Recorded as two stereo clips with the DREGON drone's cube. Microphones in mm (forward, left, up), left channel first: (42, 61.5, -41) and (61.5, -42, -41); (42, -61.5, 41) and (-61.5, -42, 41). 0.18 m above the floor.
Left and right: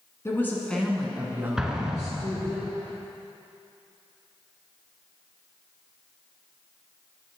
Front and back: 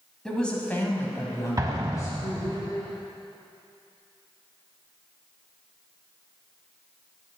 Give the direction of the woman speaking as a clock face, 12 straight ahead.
10 o'clock.